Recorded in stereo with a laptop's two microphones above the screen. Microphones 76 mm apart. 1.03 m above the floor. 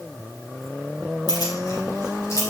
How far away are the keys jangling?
About 3 m.